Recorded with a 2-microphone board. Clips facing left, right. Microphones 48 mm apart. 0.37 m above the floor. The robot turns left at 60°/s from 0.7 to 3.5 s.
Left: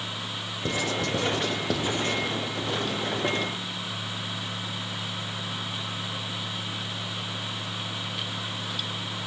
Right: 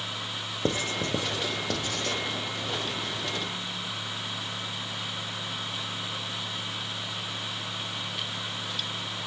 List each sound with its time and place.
0.7 s writing: 50° right (ahead or behind), 0.7 m; by 2.2 s 35° left (ahead or behind), 0.7 m